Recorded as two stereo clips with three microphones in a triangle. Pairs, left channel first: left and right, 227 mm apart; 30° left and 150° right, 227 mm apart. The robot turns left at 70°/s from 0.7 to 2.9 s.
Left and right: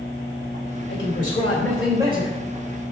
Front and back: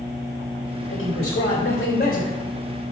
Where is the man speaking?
60° left, 3 m; by 2.4 s 45° right, 3 m.